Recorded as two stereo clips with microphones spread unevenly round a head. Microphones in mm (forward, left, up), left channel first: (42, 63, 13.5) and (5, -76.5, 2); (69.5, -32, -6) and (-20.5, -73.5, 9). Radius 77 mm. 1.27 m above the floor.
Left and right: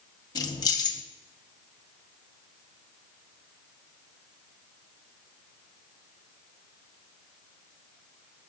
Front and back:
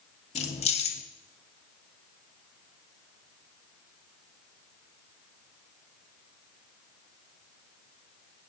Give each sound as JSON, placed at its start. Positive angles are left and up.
{"t": 0.3, "sound": "keys jangling", "azimuth_deg": 10, "distance_m": 1.4}